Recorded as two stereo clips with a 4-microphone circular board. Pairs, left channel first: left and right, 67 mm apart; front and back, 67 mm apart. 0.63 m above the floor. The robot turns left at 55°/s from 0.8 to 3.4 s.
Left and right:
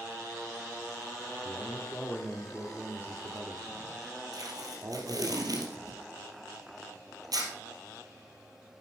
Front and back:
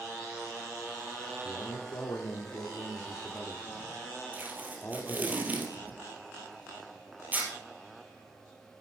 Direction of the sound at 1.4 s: 50° left.